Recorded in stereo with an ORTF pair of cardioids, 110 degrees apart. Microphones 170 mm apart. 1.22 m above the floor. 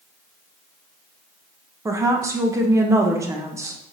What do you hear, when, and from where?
1.9 s a woman speaking: 20° right, 0.8 m